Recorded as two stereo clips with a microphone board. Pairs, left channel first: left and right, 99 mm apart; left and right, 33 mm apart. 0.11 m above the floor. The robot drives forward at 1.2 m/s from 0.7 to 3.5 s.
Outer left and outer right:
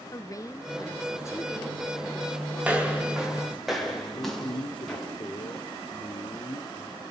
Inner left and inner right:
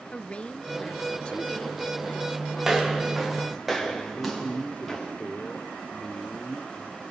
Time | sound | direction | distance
0.1 | a woman speaking | 35° left (ahead or behind) | 1.6 m
2.6 | footsteps | 15° right (ahead or behind) | 4.5 m
4.2 | a man speaking | 55° left (ahead or behind) | 2.0 m